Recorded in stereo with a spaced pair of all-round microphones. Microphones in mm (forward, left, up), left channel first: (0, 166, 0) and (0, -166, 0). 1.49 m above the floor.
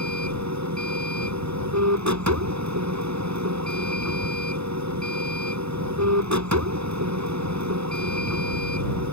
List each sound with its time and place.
0.0 s a machine running: 55° right (ahead or behind)